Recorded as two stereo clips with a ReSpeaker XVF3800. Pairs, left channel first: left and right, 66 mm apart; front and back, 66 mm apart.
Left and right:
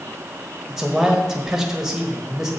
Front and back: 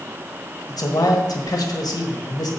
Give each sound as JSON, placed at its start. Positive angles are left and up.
{"t": 0.7, "sound": "a man speaking", "azimuth_deg": -5, "distance_m": 1.5}